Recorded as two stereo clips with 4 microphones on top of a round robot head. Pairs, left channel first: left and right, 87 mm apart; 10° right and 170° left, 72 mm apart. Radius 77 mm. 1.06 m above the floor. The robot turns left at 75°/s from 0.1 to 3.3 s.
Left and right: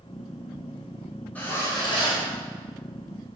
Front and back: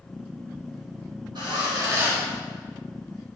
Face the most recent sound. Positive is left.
turn(degrees=15)